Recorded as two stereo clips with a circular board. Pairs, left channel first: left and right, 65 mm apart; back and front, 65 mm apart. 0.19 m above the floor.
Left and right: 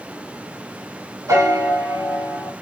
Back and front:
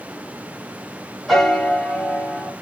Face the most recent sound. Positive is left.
turn(degrees=-95)